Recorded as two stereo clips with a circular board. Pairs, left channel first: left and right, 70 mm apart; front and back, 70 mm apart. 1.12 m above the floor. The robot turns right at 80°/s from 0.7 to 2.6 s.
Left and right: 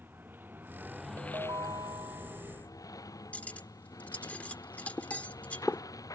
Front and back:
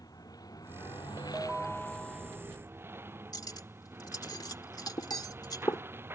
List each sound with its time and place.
0.0 s a lawn mower: 30° right; by 6.2 s 125° left
1.2 s a ringtone: 135° right; by 2.4 s 30° right
3.3 s cutlery clinking: 20° left